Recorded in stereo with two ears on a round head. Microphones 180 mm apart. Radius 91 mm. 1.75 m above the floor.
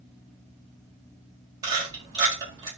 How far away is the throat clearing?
I don't hear throat clearing.